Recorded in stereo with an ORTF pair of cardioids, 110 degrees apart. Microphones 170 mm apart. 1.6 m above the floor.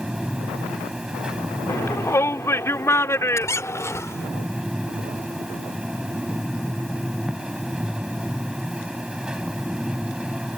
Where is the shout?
15° left.